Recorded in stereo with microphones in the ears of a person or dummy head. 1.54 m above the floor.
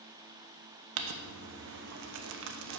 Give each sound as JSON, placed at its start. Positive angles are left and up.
{"t": 1.0, "sound": "crumpling", "side_deg": -65, "distance_m": 0.8}